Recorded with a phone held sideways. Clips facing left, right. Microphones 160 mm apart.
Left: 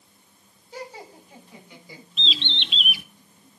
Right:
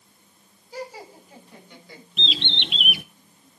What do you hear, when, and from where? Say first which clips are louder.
0.7 s laughter: right 2 dB; 5° right (ahead or behind), 6.5 m; by 2.0 s 10° left (ahead or behind), 5 m
2.2 s a bird: right 2 dB; 60° right (ahead or behind), 0.9 m